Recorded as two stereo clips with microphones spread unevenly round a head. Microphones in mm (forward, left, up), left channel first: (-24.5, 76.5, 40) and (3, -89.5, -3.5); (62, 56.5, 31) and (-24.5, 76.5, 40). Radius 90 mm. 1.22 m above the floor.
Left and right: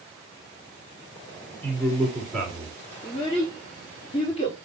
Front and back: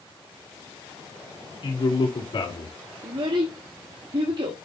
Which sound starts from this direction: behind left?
A child speaking, at 3.0 s.